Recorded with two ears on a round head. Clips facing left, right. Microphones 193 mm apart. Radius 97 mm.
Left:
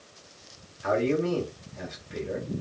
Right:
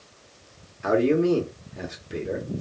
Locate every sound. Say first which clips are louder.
0.8 s a man speaking: right 5 dB; 60° right (ahead or behind), 1.7 m